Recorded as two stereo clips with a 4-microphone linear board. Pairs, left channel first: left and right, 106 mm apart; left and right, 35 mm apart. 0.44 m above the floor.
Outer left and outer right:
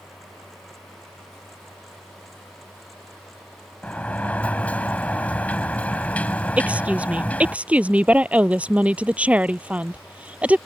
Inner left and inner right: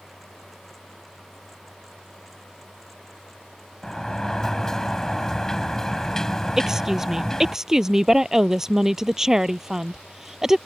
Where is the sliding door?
15° left (ahead or behind).